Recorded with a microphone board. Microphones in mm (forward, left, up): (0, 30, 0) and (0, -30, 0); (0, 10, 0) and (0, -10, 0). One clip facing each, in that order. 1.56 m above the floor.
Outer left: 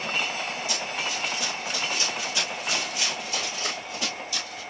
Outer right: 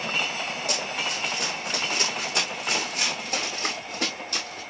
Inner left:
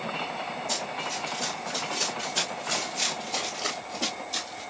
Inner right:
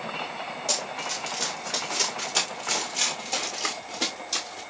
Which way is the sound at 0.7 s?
60° right (ahead or behind).